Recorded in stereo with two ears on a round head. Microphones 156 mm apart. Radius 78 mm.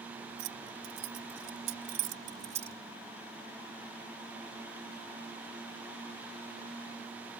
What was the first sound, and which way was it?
Keys jangling, 75° right (ahead or behind).